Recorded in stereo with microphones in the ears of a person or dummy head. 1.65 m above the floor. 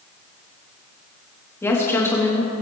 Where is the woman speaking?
10° left (ahead or behind), 2.5 m.